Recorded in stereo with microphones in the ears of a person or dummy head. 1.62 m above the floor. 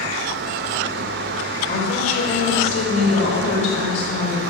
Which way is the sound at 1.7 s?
55° left (ahead or behind).